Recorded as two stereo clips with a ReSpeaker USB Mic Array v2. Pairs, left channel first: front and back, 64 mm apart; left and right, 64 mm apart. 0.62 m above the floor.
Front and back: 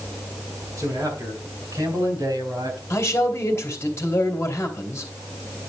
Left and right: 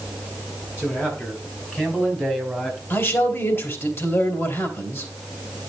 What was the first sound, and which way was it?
A man speaking, 145° left.